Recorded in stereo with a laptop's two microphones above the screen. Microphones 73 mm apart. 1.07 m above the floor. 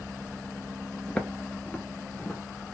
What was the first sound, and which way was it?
Footsteps, 15° left (ahead or behind).